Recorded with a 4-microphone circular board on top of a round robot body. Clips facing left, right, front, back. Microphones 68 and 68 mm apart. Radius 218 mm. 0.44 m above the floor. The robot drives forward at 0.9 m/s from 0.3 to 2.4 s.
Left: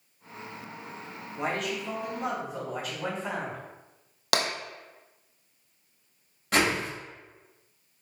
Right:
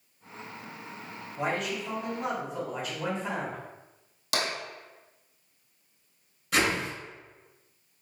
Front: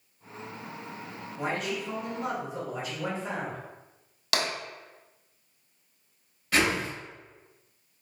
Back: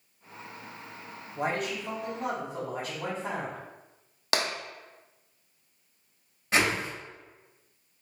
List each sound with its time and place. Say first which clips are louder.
1.4 s a man speaking: even, back 1 dB; straight behind, 2.0 m
4.3 s tapping: left 3 dB, even; 120° left, 0.8 m
6.5 s a whoosh: left 1 dB, even; 120° left, 1.9 m